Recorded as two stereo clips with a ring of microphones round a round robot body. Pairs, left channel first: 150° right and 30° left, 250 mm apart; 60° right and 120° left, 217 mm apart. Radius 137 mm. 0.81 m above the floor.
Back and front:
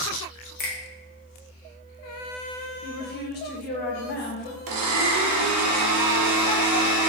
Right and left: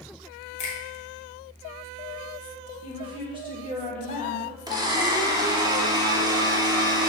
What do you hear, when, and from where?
0.6 s a finger snap: 110° right, 1.1 m
2.8 s a woman speaking: straight behind, 1.3 m
4.7 s a blender: 45° left, 0.9 m